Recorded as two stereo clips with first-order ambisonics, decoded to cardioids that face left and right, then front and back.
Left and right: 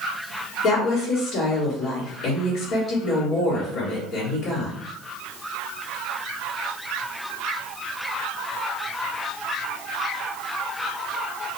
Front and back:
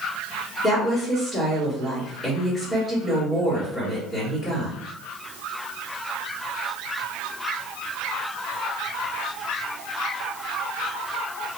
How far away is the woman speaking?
About 1.4 m.